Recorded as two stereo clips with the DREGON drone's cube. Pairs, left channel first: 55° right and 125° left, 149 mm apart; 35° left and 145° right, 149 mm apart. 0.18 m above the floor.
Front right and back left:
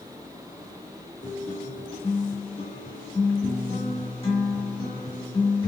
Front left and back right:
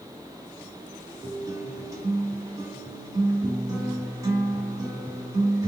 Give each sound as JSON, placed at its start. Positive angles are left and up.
{"t": 1.2, "sound": "a guitar", "azimuth_deg": -85, "distance_m": 2.5}